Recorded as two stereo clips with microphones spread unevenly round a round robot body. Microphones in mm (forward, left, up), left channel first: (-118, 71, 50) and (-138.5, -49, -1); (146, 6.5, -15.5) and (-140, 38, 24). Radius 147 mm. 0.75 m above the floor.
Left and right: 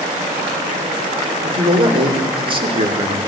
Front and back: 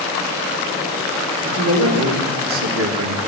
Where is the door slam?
I don't hear a door slam.